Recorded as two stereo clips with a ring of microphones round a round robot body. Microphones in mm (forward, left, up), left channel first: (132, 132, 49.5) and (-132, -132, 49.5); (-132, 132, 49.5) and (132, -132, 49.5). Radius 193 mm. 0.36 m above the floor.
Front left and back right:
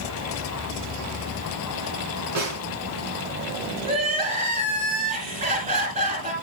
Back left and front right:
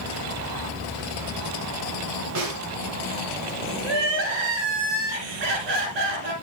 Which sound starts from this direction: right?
A snare drum, at 2.4 s.